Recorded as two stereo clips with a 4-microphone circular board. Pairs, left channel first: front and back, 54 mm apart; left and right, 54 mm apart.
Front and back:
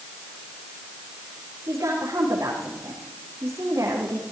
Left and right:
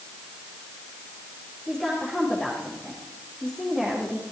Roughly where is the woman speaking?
Behind.